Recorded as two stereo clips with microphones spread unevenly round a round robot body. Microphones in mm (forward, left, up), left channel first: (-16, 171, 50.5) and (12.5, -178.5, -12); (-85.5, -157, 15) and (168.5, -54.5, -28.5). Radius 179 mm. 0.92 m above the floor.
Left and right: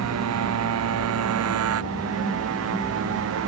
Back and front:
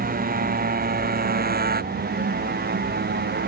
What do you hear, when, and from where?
0.0 s a motorcycle: 35° right; by 3.5 s 30° right